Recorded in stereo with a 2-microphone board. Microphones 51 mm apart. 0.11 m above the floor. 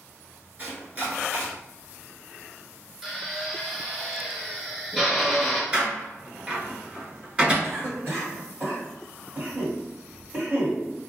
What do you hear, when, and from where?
0.6 s chopping: 35° right (ahead or behind), 1.2 m
3.0 s a drill: 5° right (ahead or behind), 0.8 m
5.7 s a door slam: 20° right (ahead or behind), 1.2 m
7.6 s a cough: 40° right (ahead or behind), 2.0 m